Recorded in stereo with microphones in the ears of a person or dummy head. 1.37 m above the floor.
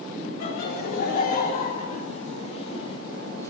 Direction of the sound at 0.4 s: 55° left (ahead or behind).